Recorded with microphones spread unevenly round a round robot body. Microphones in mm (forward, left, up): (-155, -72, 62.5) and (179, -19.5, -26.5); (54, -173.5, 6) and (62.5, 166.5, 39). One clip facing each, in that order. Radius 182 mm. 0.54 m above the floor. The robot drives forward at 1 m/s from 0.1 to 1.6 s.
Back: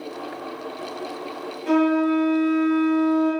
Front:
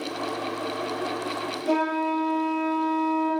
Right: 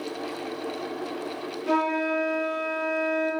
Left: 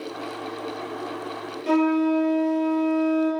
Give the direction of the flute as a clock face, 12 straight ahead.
8 o'clock.